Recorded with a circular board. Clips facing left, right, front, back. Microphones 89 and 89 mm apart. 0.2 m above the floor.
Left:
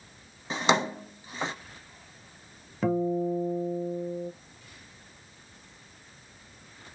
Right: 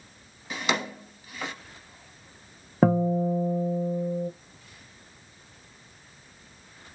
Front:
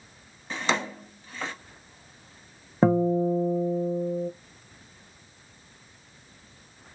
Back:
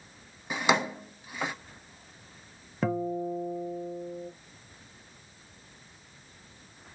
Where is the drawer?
115° left, 0.6 m.